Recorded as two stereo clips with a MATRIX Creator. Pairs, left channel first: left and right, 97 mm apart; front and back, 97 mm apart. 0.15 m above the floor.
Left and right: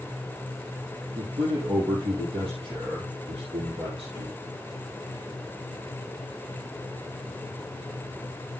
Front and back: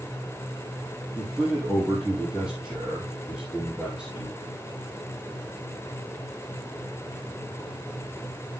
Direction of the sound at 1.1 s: 100° right.